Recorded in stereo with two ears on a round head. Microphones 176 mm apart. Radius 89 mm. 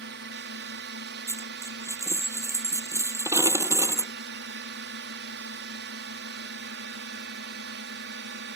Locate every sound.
0.0 s a drone: 60° right (ahead or behind)
1.3 s a dropped coin: 15° right (ahead or behind)